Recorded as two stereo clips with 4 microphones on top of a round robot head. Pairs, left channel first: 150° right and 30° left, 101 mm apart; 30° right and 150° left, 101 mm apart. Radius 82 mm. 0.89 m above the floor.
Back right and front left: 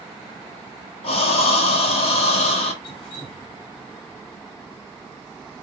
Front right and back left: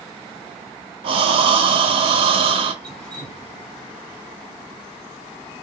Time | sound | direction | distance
1.0 | breathing | 175° right | 0.7 m
2.8 | dripping | 115° right | 2.5 m